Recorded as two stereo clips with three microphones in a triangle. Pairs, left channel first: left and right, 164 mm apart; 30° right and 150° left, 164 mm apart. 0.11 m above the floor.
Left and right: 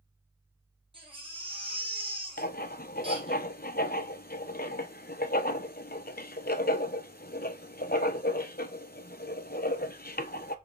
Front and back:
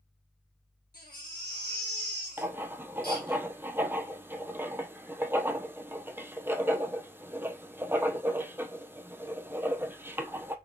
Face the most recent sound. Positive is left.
turn(degrees=75)